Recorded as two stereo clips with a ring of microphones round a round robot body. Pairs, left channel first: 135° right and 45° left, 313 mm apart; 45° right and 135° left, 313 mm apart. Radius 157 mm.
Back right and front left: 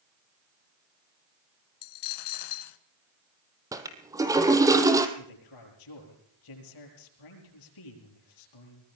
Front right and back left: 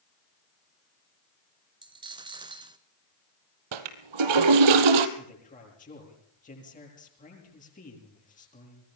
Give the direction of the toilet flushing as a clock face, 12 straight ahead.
8 o'clock.